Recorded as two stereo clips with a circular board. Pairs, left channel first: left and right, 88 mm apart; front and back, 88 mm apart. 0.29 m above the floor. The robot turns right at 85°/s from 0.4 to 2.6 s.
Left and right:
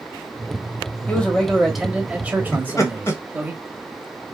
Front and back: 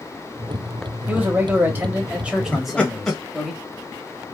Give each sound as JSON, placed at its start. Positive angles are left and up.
{"t": 1.1, "sound": "a man speaking", "azimuth_deg": 135, "distance_m": 1.0}
{"t": 2.5, "sound": "laughter", "azimuth_deg": 60, "distance_m": 1.0}